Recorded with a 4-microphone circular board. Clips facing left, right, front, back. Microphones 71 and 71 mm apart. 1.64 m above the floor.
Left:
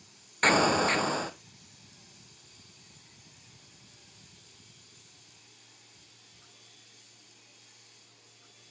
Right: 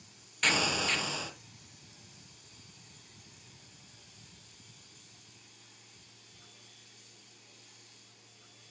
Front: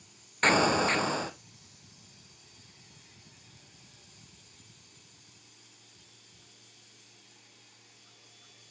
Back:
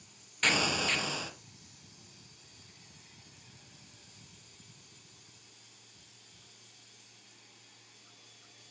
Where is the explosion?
45° left, 0.8 m.